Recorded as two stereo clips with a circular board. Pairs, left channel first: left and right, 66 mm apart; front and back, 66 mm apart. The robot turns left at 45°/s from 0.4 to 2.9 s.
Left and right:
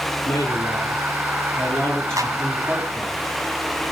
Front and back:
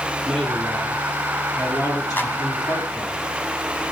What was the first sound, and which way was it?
A man speaking, 90° left.